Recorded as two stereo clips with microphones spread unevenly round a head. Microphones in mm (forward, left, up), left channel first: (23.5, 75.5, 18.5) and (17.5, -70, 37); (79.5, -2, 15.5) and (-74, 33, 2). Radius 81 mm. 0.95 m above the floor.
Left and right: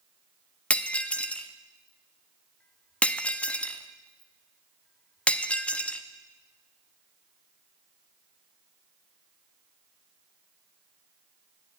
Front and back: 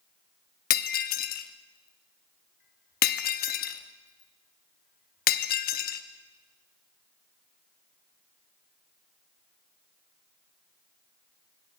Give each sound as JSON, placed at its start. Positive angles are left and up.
{"t": 0.7, "sound": "breaking glass", "azimuth_deg": 5, "distance_m": 0.7}